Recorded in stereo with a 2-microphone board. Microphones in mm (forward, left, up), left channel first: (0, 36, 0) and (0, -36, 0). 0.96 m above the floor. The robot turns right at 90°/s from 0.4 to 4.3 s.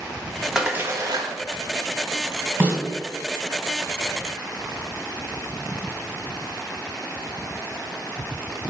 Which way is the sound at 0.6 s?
175° right.